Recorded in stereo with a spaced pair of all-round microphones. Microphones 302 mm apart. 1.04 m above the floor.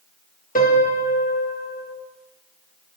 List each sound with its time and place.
0.6 s a piano: 25° left (ahead or behind), 1.0 m